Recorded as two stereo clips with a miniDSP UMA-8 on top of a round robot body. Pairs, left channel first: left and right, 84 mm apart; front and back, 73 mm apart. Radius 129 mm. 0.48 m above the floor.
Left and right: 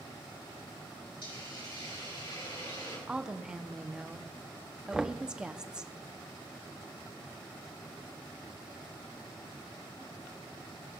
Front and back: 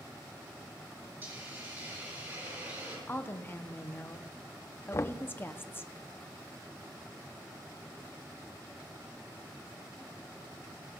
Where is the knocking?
10° right, 0.6 m.